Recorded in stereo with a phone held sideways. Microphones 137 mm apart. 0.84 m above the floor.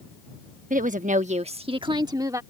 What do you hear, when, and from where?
0.7 s a woman speaking: 70° right (ahead or behind); by 2.4 s 25° right (ahead or behind)